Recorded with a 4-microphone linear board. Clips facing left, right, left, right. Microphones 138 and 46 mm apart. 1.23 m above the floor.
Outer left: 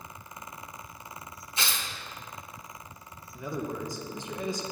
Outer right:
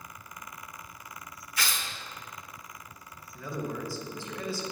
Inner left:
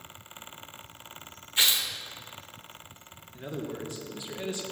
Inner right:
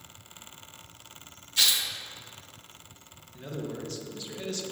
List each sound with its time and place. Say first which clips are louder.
1.6 s tearing paper: even, even; 25° left (ahead or behind), 1.0 m
3.3 s a man speaking: outer left 1 dB, even; 20° left (ahead or behind), 1.3 m